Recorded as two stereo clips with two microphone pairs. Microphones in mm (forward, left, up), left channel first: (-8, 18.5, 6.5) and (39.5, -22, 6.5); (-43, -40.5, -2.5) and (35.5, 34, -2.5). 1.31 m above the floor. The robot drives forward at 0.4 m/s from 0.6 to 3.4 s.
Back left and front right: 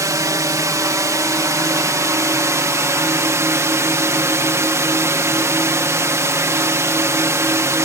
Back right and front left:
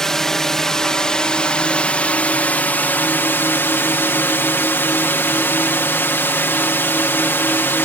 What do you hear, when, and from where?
0.0 s a drone: 50° right; by 7.8 s 70° right